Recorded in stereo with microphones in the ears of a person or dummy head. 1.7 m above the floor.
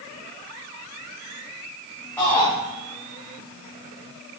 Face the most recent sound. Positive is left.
turn(degrees=10)  # may be behind; listen again after turning